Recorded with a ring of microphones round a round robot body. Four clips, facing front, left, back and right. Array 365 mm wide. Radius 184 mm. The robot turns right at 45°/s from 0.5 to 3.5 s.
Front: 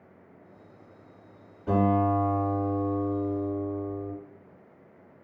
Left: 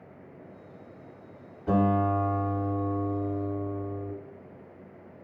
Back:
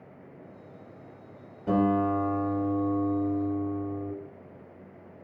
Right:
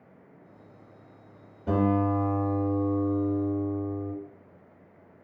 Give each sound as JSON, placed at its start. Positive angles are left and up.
{"t": 1.7, "sound": "a guitar", "azimuth_deg": -125, "distance_m": 1.6}